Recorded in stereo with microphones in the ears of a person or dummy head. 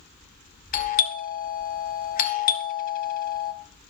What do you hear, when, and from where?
0.7 s a doorbell: 40° left (ahead or behind), 1.4 m